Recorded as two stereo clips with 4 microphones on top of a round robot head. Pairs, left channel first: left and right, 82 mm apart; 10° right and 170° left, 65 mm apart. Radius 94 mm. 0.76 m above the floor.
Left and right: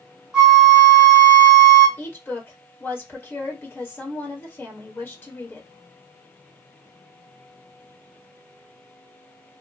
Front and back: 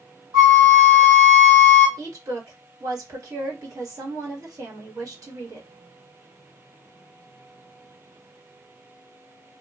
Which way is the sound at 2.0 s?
150° left.